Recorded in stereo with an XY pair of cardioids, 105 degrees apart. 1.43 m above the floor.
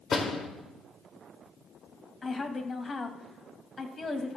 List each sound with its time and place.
0.1 s a door slam: 40° left, 2.5 m
2.2 s a woman speaking: 30° left, 2 m